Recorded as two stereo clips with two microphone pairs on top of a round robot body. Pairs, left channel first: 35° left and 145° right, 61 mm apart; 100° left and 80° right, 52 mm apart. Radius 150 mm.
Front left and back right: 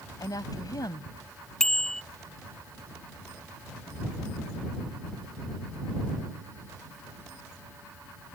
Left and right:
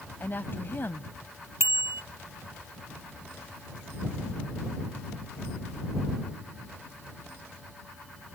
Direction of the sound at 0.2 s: 50° left.